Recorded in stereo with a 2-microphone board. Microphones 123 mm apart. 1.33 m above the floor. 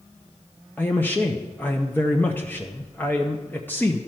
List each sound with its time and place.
0.8 s a man speaking: 15° left (ahead or behind), 0.7 m